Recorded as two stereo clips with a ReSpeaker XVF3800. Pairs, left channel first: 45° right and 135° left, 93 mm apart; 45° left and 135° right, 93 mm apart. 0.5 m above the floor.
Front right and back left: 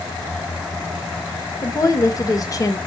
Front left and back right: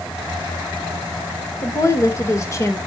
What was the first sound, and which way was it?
A woman speaking, 5° right.